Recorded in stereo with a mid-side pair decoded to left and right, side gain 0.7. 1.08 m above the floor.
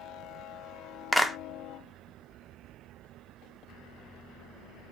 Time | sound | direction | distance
1.1 | a clap | 5° left | 0.5 m